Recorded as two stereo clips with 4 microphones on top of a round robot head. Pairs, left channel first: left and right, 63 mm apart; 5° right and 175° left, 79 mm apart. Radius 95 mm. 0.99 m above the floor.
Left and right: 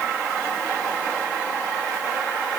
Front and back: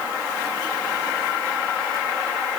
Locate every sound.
Only background noise.